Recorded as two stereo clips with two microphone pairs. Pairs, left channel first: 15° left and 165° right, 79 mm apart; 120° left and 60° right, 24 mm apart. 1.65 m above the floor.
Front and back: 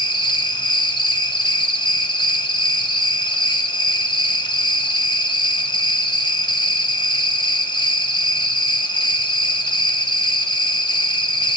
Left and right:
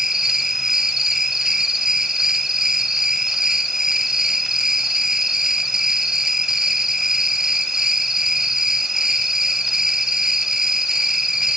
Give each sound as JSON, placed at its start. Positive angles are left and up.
{"t": 0.0, "sound": "an insect", "azimuth_deg": 10, "distance_m": 1.5}